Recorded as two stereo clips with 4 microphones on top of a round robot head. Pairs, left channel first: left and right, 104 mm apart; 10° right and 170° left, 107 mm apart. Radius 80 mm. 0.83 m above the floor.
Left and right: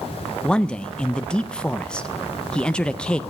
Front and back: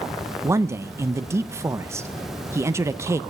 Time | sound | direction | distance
0.4 | a man speaking | 160° left | 0.5 m